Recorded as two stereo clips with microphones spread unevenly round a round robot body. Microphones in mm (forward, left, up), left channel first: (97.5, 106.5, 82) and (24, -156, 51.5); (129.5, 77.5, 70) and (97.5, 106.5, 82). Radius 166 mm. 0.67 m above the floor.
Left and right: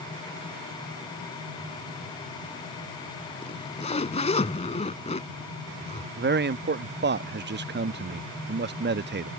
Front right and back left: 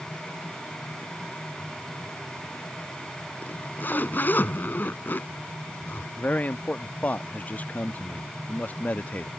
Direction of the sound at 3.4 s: 10° left.